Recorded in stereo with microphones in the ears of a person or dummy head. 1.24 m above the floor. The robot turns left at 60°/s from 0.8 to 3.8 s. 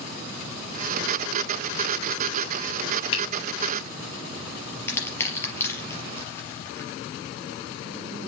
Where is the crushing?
15° left (ahead or behind), 4 m.